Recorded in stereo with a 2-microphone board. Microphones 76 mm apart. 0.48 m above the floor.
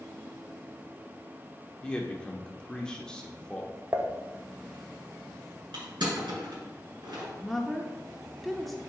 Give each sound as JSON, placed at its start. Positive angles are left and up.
{"t": 1.8, "sound": "a man speaking", "side_deg": 10, "distance_m": 0.8}
{"t": 3.9, "sound": "dishes clattering", "side_deg": -30, "distance_m": 0.6}
{"t": 5.7, "sound": "crushing", "side_deg": -75, "distance_m": 3.0}
{"t": 7.3, "sound": "a woman speaking", "side_deg": 0, "distance_m": 0.7}